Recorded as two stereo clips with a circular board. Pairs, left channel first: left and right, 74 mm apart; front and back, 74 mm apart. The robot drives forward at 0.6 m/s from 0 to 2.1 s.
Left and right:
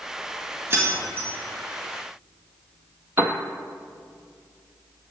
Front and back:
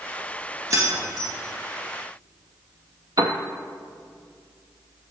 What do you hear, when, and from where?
0.7 s keys jangling: 140° right, 1.5 m; by 1.3 s 150° right, 1.8 m
3.2 s a piano: 150° right, 0.6 m